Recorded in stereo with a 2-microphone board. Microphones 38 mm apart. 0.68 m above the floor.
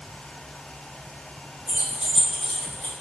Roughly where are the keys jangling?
Right.